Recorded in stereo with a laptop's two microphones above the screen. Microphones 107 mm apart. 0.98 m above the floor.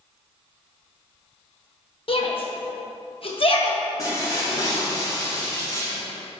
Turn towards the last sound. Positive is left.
turn(degrees=35)  # may be behind; listen again after turning